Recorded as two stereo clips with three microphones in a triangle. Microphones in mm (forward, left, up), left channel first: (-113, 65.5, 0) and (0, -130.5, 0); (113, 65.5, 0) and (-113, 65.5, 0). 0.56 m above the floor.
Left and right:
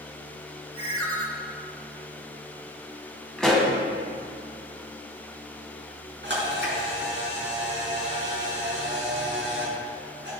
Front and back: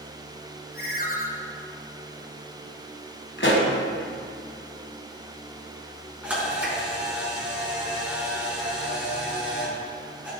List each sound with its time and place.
0.7 s a ringtone: 45° right, 2.0 m
3.4 s a pop: 35° left, 2.5 m
6.2 s a camera shutter: 95° right, 4.5 m